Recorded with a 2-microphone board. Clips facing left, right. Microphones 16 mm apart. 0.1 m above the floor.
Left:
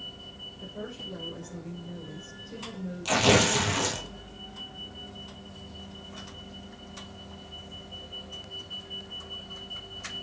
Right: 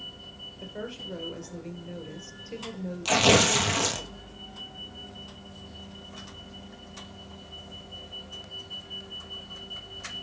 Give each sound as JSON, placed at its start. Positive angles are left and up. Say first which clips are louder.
{"t": 0.6, "sound": "a woman speaking", "louder": "right 2 dB", "side_deg": -55, "distance_m": 2.5}
{"t": 3.0, "sound": "tearing paper", "louder": "right 2 dB", "side_deg": -15, "distance_m": 1.2}